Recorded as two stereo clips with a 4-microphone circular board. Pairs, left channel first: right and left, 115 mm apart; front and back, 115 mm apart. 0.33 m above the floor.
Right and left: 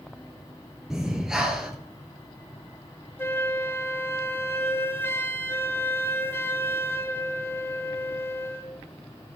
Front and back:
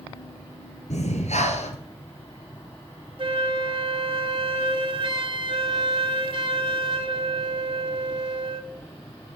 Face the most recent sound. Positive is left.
turn(degrees=-155)